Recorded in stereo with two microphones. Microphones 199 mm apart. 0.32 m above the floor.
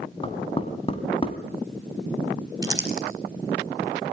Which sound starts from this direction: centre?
Crumpling, at 2.6 s.